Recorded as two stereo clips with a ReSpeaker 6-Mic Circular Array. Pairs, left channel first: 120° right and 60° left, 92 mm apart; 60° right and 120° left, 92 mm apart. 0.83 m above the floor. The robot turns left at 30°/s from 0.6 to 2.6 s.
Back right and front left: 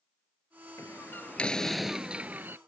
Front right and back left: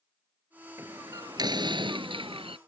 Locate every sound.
0.8 s a door slam: straight behind; by 2.6 s 125° left